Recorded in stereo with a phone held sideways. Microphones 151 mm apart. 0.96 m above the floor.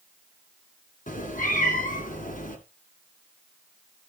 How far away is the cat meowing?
About 2.5 m.